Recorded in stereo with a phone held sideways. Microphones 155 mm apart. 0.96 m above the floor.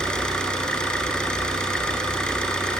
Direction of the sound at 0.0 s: 5° left (ahead or behind).